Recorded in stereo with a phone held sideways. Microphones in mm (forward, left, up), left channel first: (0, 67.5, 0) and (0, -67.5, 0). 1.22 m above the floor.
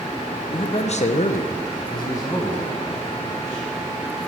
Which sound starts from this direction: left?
A man speaking, at 0.5 s.